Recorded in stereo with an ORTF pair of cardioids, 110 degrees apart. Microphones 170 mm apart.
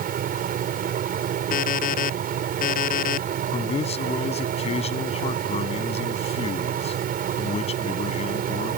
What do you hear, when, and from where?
0.0 s a fan: 55° right
1.5 s an alarm clock: 50° left
3.5 s a man speaking: 35° left